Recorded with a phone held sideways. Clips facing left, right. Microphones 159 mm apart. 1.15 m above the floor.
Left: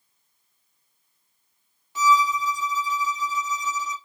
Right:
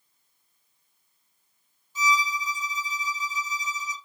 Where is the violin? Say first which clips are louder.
Left 7 dB; 70° left (ahead or behind), 1.3 m.